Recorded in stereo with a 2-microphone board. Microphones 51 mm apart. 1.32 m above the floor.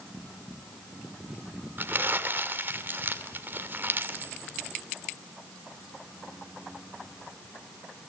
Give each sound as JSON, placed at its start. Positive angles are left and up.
{"t": 1.8, "sound": "crumpling", "side_deg": -40, "distance_m": 1.9}